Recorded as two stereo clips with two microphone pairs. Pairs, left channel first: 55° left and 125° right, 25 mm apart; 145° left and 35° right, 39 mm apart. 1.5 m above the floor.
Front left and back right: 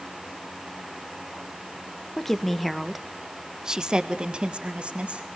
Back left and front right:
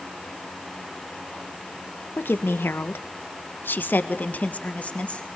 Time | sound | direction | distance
2.2 | a woman speaking | 130° left | 1.6 m